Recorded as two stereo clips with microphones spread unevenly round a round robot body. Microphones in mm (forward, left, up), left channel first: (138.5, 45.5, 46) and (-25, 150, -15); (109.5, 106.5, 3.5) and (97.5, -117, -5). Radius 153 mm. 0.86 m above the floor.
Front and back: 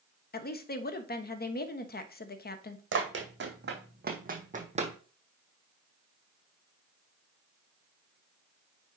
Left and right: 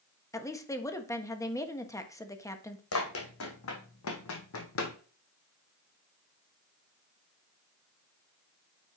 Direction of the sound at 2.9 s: 120° left.